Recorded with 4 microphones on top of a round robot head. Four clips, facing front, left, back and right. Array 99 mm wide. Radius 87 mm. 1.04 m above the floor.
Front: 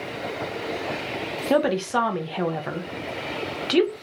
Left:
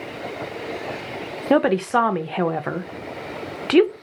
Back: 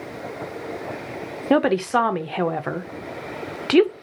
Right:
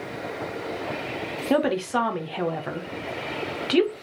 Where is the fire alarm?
I don't hear a fire alarm.